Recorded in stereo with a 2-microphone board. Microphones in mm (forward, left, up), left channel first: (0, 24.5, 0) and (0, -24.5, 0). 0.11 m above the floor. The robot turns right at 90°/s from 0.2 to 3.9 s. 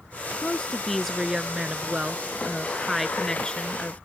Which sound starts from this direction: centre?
A woman speaking, at 0.4 s.